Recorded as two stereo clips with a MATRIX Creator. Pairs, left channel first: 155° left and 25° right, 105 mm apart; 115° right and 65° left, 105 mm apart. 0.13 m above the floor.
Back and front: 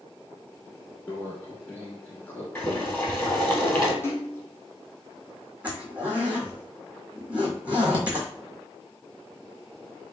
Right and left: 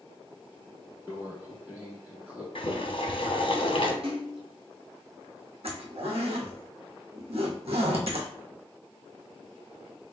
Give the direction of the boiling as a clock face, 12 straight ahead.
4 o'clock.